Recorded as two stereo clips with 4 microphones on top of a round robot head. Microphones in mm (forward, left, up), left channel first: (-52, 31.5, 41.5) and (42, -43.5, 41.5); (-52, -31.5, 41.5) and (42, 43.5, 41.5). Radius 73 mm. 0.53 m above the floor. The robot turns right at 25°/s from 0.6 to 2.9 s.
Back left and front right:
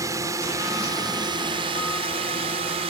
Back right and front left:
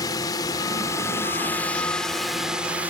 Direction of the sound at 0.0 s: 95° right.